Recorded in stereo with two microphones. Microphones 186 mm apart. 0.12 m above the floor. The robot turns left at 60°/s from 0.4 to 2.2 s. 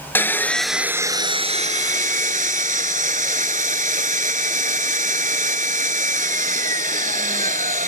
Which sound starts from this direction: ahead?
Sawing, at 0.1 s.